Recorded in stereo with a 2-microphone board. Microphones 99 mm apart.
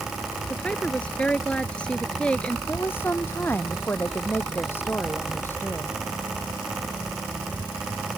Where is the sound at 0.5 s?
10° left (ahead or behind).